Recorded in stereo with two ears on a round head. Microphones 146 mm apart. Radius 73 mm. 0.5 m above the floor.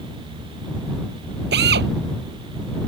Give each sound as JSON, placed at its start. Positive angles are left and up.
{"t": 1.5, "sound": "a drill", "side_deg": -75}